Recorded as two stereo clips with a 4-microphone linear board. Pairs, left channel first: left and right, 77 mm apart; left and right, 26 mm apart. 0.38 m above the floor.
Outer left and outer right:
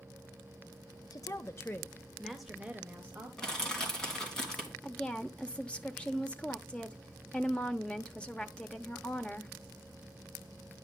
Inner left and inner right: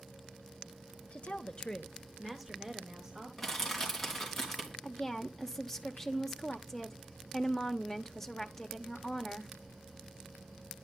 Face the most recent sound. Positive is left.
turn(degrees=15)  # may be behind; listen again after turning